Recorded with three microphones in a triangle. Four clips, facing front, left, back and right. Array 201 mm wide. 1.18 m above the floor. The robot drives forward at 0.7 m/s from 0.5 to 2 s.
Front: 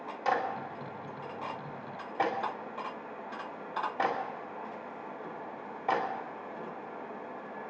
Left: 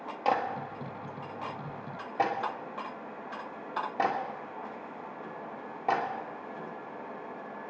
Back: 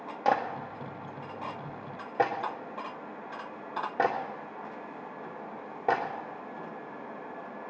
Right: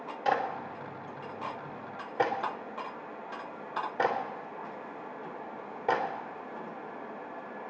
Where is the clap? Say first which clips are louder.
Left 1 dB, back 3 dB; 165° left, 1.9 m; by 6.0 s 170° left, 3 m.